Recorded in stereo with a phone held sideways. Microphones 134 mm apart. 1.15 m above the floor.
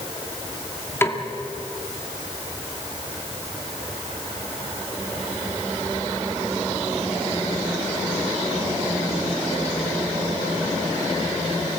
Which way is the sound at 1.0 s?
20° left (ahead or behind).